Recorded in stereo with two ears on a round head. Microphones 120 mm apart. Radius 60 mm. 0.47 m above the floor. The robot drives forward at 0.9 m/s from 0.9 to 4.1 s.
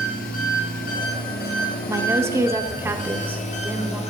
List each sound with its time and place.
0.0 s an engine running: 70° left (ahead or behind), 2.5 m; by 4.1 s 50° left (ahead or behind), 3 m
1.9 s a woman speaking: 20° right (ahead or behind), 1.3 m; by 4.0 s 10° right (ahead or behind), 2 m